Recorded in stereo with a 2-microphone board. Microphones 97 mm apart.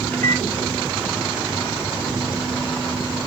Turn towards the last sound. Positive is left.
turn(degrees=15)  # may be behind; listen again after turning